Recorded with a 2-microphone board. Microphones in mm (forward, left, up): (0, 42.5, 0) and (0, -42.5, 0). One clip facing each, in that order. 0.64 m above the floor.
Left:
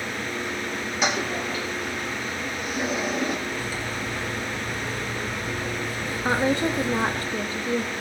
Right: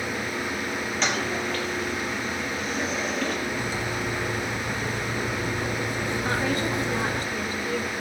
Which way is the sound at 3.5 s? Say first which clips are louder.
Right 1 dB; 25° right (ahead or behind).